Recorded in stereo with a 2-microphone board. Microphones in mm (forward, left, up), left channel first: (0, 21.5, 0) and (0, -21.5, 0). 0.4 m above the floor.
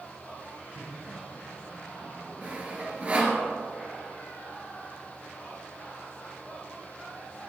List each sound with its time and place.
0.8 s laughter: 40° right (ahead or behind), 4 m
2.4 s sawing: 25° right (ahead or behind), 2 m